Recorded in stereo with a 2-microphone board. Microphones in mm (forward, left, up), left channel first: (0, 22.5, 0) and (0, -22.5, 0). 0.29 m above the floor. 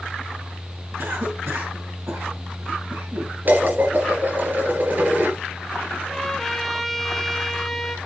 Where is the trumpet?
5° left (ahead or behind), 1.2 m.